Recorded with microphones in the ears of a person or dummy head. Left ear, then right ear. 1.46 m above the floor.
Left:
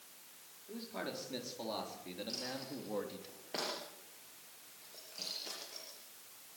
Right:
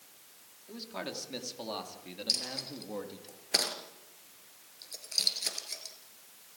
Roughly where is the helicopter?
No helicopter in this recording.